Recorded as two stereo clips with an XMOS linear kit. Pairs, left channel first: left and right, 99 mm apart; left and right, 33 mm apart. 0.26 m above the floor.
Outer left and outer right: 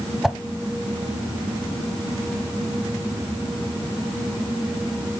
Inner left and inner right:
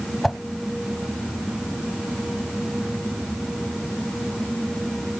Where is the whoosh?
5° right (ahead or behind), 0.6 m.